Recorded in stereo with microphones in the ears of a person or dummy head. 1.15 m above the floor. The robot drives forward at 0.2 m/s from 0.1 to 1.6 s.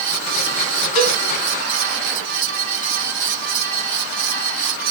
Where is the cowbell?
50° left (ahead or behind), 2.5 m.